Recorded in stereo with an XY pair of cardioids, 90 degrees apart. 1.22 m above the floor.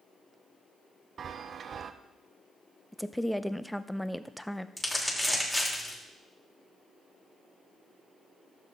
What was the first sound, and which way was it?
A chime, 55° right.